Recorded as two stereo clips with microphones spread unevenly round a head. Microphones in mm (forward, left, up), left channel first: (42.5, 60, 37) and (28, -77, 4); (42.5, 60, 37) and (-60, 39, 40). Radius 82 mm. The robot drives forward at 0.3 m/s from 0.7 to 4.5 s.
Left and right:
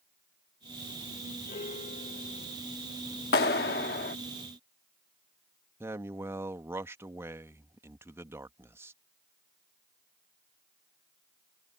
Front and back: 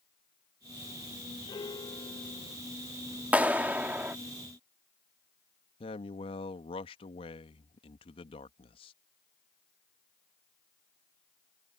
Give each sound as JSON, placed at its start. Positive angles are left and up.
{"t": 1.5, "sound": "a piano", "azimuth_deg": 60}
{"t": 3.3, "sound": "a clap", "azimuth_deg": 115}
{"t": 5.8, "sound": "a man speaking", "azimuth_deg": -30}